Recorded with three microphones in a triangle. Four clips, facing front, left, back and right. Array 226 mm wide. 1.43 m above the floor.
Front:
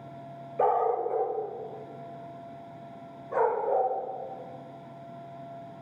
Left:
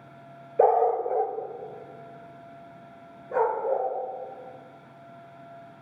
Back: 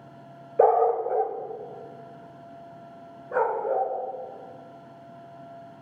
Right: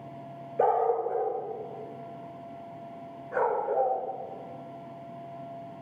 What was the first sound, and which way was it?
A dog barking, 145° left.